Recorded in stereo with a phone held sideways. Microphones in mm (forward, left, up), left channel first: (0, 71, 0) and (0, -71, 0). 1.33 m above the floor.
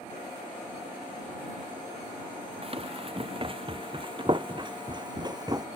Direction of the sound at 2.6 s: 40° right (ahead or behind).